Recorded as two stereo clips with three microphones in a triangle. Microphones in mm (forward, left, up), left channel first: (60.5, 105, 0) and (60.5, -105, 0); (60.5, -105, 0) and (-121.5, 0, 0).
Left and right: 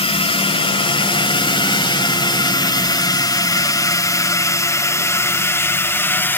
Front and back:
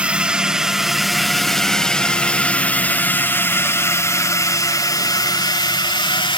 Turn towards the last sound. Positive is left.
turn(degrees=15)